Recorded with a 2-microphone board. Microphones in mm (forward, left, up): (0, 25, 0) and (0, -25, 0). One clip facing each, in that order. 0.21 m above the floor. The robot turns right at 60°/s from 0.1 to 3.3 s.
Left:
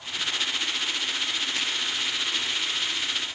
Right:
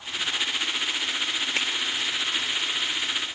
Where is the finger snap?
45° right (ahead or behind), 4 m; by 1.7 s 40° right (ahead or behind), 4 m.